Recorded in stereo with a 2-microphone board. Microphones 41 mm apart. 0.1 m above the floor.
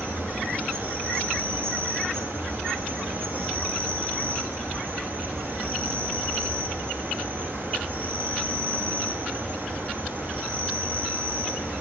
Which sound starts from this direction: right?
An insect, at 0.0 s.